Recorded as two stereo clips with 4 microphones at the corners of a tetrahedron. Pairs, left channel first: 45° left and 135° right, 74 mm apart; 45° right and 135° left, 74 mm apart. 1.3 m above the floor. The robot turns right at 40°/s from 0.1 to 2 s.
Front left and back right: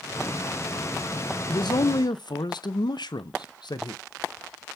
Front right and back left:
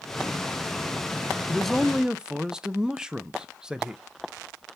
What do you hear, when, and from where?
1.5 s a man speaking: 35° left, 0.6 m; by 4.0 s 55° left, 0.6 m